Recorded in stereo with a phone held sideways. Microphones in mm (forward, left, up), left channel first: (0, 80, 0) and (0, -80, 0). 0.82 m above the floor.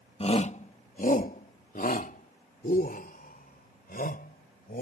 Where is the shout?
40° left (ahead or behind); by 4.8 s 75° left (ahead or behind).